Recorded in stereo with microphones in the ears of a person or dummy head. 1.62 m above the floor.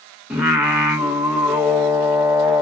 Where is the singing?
10° right (ahead or behind), 1.4 m.